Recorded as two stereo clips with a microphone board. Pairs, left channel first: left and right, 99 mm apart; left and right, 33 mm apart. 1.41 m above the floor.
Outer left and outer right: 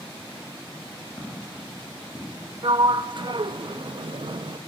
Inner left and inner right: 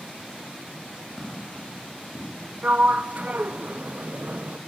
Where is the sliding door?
55° right (ahead or behind), 0.5 m.